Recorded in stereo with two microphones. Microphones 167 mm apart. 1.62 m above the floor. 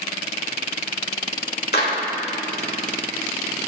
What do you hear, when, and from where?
1.7 s a clap: 75° left (ahead or behind), 2.0 m